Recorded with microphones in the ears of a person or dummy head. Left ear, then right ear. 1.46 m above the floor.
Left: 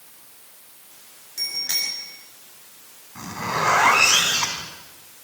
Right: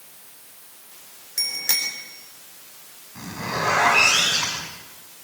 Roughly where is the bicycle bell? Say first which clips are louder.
Right 1 dB; right.